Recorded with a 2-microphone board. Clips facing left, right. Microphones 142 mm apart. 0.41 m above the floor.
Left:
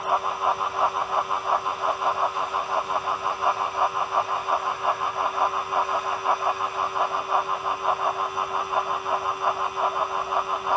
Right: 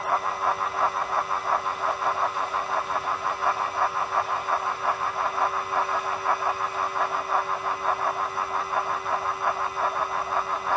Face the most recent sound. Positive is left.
No sound to turn to.